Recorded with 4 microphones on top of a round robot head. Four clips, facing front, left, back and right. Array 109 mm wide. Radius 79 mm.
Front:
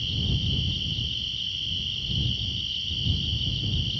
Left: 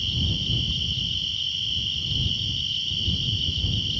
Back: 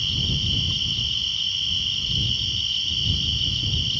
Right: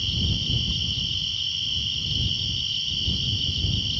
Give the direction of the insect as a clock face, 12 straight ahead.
6 o'clock.